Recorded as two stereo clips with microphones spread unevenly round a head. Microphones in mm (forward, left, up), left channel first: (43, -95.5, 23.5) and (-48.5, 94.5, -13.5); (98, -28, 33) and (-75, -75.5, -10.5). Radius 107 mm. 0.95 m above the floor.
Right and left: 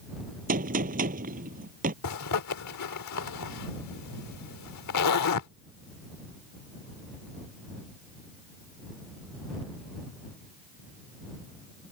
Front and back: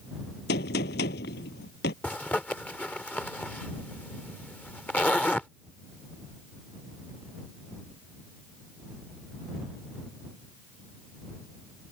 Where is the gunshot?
60° left.